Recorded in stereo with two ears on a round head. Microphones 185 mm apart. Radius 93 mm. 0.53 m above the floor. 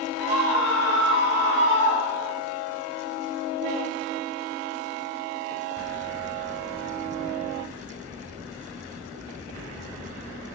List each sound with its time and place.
0.2 s a scream: 55° left (ahead or behind), 4.5 m; by 2.4 s 50° left (ahead or behind), 3 m